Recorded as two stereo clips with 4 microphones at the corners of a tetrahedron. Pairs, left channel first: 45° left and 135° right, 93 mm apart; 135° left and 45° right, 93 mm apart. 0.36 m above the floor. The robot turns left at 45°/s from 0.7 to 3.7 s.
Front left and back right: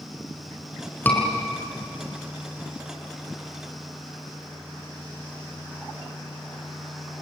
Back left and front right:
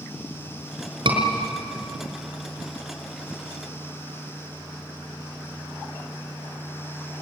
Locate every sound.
1.1 s a scream: 25° right, 6 m; by 1.2 s 30° right, 6 m